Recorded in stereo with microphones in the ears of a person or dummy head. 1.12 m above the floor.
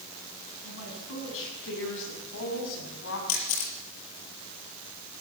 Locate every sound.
0.6 s a woman speaking: 75° left (ahead or behind), 8.5 m
3.3 s a camera shutter: 80° left, 6 m